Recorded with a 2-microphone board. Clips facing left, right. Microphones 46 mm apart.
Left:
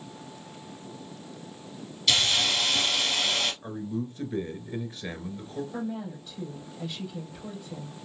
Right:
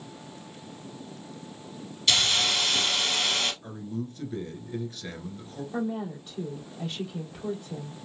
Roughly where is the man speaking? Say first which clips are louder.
Left 2 dB; left.